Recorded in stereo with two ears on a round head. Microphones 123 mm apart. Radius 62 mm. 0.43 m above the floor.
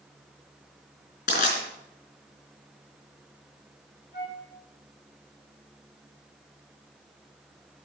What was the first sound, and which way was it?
Crushing, 70° left (ahead or behind).